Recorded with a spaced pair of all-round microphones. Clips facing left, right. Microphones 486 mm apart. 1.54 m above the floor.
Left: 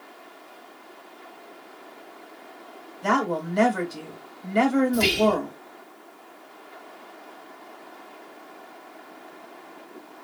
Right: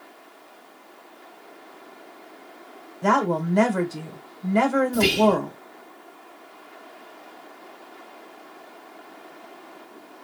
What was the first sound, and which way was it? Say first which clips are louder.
A woman speaking: right 3 dB; 70° right (ahead or behind).